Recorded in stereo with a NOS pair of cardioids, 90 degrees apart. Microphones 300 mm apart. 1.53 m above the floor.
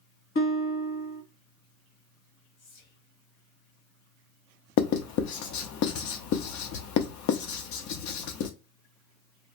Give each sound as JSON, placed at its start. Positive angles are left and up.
{"t": 0.3, "sound": "a guitar", "azimuth_deg": 45, "distance_m": 1.1}
{"t": 2.6, "sound": "whispering", "azimuth_deg": 65, "distance_m": 1.5}
{"t": 4.8, "sound": "writing", "azimuth_deg": 70, "distance_m": 0.7}